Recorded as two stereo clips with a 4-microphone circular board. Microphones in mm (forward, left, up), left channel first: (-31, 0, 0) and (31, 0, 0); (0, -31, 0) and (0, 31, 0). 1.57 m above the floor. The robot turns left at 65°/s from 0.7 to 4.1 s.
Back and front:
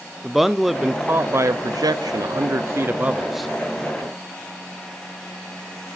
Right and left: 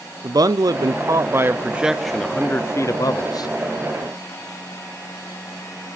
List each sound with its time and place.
0.2 s a man speaking: 85° left, 0.5 m; by 3.5 s 95° right, 0.5 m